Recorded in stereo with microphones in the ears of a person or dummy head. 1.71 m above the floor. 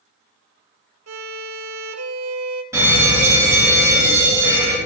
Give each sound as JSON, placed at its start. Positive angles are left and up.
{"t": 1.1, "sound": "a violin", "side_deg": -80, "distance_m": 0.8}
{"t": 2.7, "sound": "a fire alarm", "side_deg": -15, "distance_m": 3.0}